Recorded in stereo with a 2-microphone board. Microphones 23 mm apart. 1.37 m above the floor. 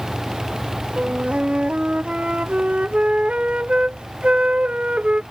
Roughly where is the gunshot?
No gunshot in this recording.